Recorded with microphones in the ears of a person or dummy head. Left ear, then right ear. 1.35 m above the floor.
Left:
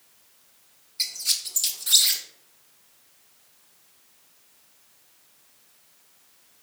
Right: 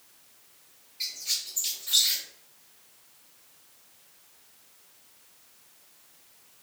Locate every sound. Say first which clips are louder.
1.0 s a squeak: left 5 dB; 70° left (ahead or behind), 0.7 m